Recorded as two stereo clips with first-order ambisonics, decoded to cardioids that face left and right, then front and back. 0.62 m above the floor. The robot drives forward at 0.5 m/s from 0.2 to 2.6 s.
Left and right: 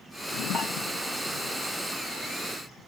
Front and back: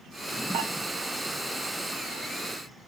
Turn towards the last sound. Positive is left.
turn(degrees=180)